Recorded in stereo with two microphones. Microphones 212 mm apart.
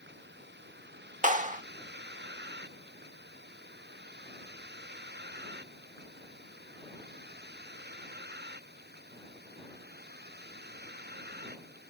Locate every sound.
0.0 s a vehicle: 55° right (ahead or behind); by 11.9 s 50° right (ahead or behind)
1.2 s a clap: 40° right (ahead or behind)